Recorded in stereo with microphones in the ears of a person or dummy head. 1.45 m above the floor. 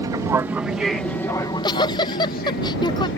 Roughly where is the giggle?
Left.